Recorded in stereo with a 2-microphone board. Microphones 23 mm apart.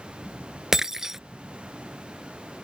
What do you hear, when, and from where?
0.7 s breaking glass: 15° right (ahead or behind)